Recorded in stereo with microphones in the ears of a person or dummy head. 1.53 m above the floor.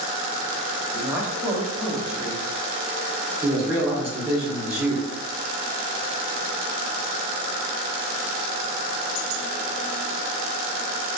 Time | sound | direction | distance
0.9 | a woman speaking | 5° right (ahead or behind) | 0.8 m
3.4 | a man speaking | 5° right (ahead or behind) | 0.8 m